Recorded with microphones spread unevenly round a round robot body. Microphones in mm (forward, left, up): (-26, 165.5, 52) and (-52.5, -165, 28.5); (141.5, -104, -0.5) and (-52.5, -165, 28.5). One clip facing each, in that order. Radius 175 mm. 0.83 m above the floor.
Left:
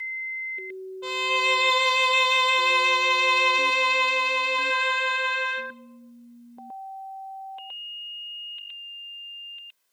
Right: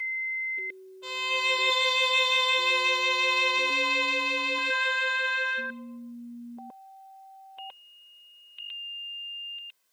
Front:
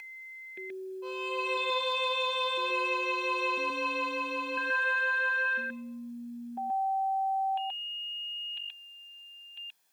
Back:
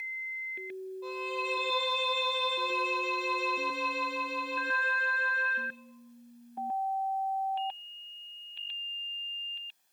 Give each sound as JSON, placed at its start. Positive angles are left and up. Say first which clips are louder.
{"t": 1.0, "sound": "a violin", "louder": "left 6 dB, front 1 dB", "azimuth_deg": 105, "distance_m": 0.7}